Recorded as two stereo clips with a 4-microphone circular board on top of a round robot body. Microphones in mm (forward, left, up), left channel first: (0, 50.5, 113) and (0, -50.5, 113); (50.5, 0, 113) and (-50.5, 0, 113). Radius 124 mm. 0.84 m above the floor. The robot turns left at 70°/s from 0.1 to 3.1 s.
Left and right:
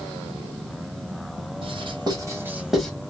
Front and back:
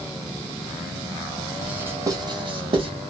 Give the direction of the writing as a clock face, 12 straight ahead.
3 o'clock.